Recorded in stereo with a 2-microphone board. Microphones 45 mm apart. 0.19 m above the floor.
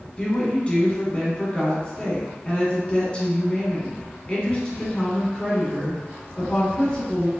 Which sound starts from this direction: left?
A woman speaking, at 0.2 s.